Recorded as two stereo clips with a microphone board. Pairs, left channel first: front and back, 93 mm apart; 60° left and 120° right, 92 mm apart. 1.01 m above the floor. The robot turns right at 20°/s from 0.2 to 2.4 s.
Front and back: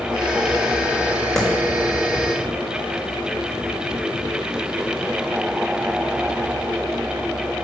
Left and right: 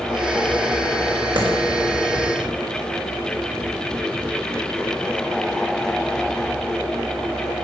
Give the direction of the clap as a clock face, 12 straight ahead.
3 o'clock.